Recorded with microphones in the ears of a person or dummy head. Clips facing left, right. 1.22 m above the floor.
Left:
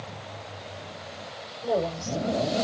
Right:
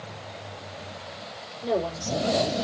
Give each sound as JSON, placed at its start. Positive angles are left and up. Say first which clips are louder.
{"t": 1.6, "sound": "a woman speaking", "louder": "even", "side_deg": -40, "distance_m": 4.5}